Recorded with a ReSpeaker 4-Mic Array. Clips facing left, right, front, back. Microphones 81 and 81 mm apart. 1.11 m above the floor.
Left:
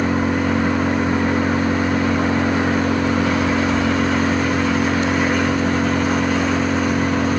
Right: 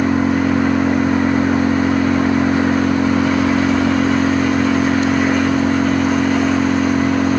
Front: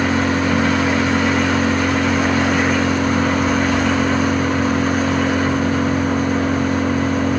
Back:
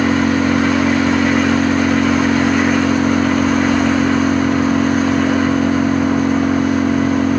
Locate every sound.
0.0 s an engine running: 105° right, 2 m